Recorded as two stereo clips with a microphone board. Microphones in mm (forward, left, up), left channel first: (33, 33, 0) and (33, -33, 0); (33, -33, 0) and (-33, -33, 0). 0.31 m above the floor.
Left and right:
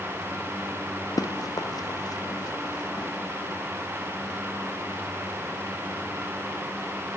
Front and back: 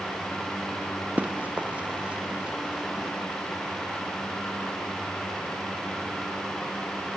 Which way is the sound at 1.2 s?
115° left.